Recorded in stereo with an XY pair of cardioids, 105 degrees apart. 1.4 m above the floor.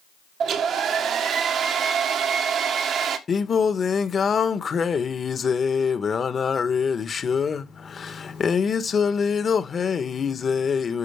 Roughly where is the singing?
Ahead left.